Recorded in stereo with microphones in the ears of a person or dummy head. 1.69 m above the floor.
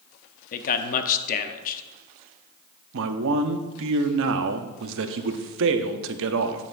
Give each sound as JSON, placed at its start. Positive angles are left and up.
{"t": 0.5, "sound": "a man speaking", "side_deg": 45, "distance_m": 0.8}
{"t": 2.9, "sound": "a man speaking", "side_deg": -70, "distance_m": 0.8}